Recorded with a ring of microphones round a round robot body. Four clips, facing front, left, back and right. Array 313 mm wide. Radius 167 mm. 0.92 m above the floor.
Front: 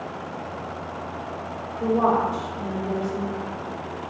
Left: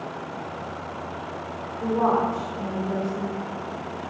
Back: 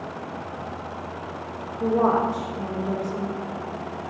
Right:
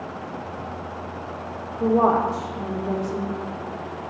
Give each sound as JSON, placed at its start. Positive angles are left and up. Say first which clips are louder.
{"t": 1.8, "sound": "a woman speaking", "louder": "right 3 dB, even", "azimuth_deg": -105, "distance_m": 1.6}